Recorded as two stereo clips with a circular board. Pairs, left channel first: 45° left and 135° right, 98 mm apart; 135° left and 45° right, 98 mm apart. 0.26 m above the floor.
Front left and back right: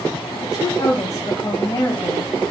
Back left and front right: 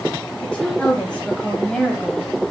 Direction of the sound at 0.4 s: 60° left.